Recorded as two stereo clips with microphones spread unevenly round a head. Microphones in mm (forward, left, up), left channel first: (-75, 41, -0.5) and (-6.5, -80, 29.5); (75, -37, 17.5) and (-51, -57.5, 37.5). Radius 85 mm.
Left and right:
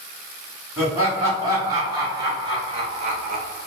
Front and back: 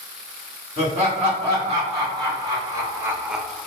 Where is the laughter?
130° right, 1.6 m; by 3.7 s 65° right, 0.5 m.